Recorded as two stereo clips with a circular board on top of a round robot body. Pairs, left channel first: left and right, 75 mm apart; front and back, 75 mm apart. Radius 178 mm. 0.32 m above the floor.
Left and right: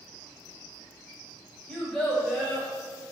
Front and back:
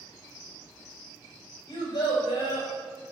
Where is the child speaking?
10° left, 1.6 m.